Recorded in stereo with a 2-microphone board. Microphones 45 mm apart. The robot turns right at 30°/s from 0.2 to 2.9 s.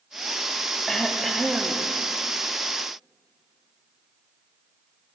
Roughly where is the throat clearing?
Behind.